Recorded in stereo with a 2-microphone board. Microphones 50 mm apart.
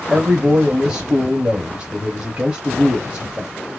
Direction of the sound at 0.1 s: 20° right (ahead or behind).